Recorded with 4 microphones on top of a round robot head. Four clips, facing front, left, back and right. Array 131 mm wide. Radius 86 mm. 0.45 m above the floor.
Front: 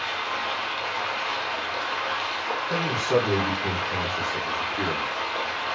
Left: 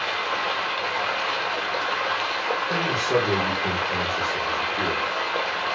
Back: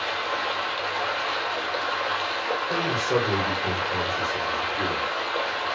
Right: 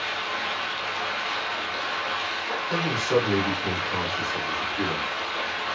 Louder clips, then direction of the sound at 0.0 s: Left 4 dB, back 2 dB; 105° left.